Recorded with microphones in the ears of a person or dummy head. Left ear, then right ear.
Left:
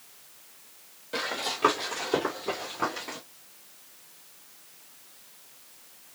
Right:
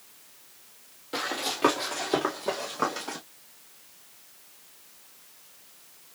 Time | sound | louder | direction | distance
1.1 | running footsteps | even | 20° right (ahead or behind) | 2 m